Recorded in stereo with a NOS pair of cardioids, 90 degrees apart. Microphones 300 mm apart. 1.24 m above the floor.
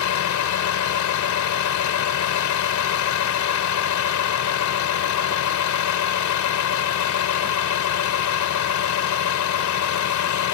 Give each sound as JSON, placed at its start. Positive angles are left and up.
{"t": 0.0, "sound": "a vehicle", "azimuth_deg": 70}